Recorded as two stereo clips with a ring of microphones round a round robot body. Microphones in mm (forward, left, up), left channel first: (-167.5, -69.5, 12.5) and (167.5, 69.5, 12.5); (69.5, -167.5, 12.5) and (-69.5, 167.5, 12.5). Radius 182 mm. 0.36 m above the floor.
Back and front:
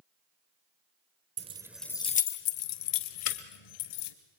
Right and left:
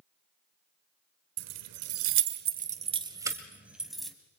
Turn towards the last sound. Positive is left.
turn(degrees=-155)